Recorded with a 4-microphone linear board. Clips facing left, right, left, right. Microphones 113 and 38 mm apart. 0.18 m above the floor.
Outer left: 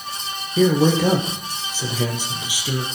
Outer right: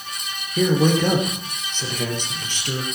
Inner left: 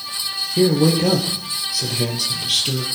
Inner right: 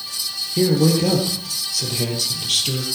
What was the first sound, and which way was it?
A man speaking, 10° left (ahead or behind).